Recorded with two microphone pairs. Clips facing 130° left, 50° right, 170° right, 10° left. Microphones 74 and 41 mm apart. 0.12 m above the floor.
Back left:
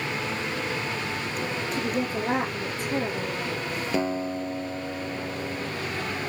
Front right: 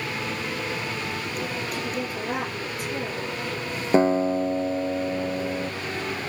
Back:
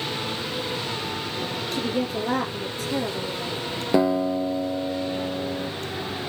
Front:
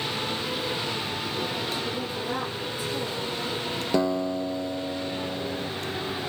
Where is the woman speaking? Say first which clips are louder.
Back left 2 dB, back 4 dB; 175° right, 3 m.